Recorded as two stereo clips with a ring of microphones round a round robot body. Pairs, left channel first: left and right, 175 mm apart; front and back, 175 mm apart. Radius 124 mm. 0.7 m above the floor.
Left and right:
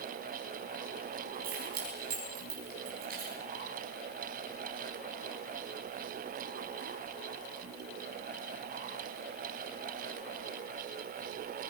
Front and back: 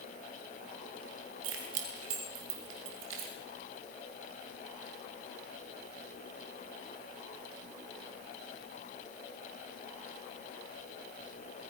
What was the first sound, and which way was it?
Keys jangling, 145° right.